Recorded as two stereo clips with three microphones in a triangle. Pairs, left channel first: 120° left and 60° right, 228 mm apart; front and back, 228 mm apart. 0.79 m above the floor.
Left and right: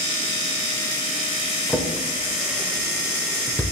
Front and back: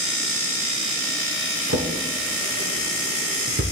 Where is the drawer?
155° right, 1.1 m.